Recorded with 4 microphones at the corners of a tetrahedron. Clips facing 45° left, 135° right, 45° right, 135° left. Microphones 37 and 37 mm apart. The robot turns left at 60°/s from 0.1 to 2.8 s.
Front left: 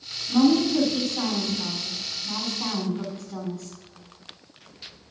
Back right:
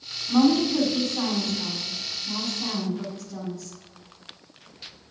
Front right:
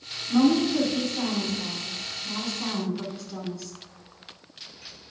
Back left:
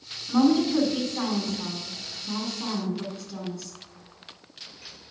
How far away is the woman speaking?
About 2 m.